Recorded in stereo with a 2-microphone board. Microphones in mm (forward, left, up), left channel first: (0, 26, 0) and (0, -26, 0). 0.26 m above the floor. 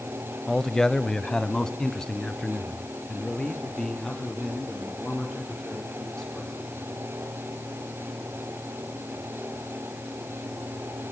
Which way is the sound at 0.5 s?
5° left (ahead or behind).